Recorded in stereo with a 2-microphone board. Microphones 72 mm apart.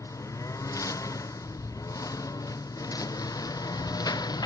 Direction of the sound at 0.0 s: 45° left (ahead or behind).